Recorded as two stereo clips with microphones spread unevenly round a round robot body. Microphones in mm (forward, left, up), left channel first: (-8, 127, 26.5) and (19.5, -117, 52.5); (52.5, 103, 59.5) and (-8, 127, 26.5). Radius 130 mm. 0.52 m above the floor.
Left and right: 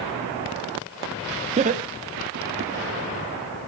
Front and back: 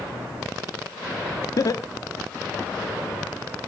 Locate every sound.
1.6 s laughter: 45° right, 0.7 m; by 2.7 s 95° right, 1.0 m